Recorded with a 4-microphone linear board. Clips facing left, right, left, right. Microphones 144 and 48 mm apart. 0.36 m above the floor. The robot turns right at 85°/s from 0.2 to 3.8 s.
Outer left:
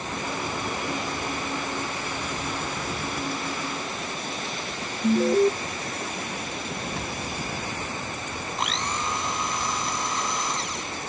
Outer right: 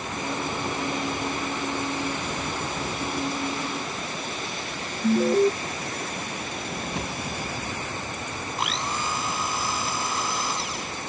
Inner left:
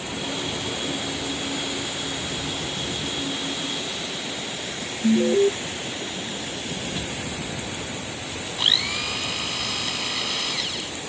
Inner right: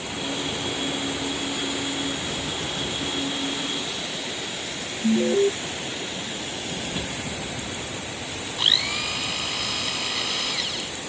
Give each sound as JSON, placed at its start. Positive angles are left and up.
{"t": 5.0, "sound": "an alarm", "side_deg": 0}
{"t": 7.0, "sound": "a drawer", "side_deg": -20}
{"t": 8.6, "sound": "a blender", "side_deg": 0}